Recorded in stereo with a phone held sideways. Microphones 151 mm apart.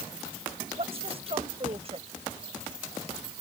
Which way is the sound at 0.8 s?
40° right (ahead or behind).